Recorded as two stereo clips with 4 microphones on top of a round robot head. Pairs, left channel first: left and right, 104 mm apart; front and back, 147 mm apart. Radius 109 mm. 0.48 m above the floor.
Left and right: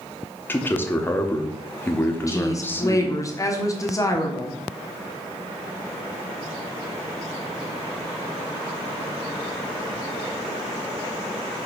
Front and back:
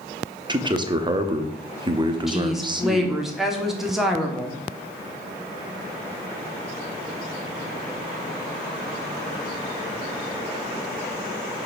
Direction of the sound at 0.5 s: 145° left.